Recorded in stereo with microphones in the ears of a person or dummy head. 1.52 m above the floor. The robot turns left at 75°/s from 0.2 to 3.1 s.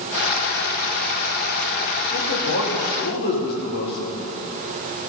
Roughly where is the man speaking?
Behind left.